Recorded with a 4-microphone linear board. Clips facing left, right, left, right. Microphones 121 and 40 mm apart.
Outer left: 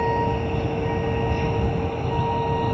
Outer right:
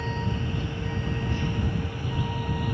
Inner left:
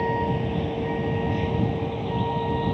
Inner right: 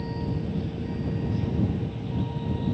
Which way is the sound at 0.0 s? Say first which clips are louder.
Outer left 9 dB, inner left 7 dB; 60° left (ahead or behind).